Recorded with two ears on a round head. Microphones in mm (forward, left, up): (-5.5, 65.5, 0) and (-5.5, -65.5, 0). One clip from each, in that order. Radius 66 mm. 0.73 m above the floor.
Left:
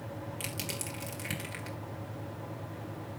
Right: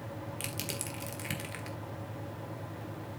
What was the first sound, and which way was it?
Crushing, 10° right (ahead or behind).